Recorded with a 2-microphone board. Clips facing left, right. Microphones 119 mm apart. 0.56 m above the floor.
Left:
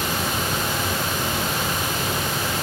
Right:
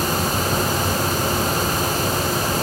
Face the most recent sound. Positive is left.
No sound to turn to.